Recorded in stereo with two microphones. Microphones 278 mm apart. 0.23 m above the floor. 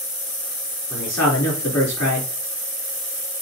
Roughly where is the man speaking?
Left.